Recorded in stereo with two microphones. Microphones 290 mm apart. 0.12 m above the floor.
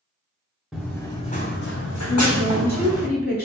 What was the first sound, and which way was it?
Running footsteps, 5° right (ahead or behind).